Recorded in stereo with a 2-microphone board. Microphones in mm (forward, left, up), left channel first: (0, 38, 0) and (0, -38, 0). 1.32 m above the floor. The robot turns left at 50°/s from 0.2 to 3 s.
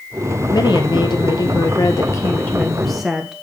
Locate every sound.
0.5 s a woman speaking: 120° left, 1.2 m; by 3.3 s 5° right, 1.2 m